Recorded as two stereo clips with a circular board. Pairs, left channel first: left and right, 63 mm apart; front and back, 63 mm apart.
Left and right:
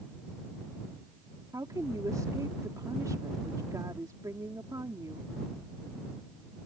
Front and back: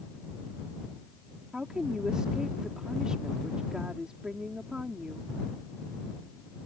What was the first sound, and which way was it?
A woman speaking, 100° right.